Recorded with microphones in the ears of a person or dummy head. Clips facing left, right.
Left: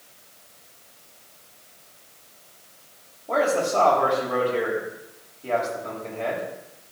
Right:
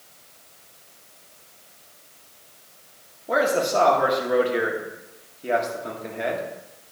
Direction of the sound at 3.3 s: 20° right (ahead or behind).